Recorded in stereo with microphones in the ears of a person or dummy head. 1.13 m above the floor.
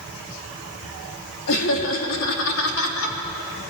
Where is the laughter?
65° left (ahead or behind), 3 m.